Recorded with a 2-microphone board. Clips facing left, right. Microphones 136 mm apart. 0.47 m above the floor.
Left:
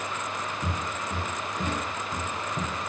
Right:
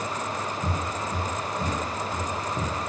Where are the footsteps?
40° left (ahead or behind), 1.7 m; by 2.9 s 15° right (ahead or behind), 0.8 m.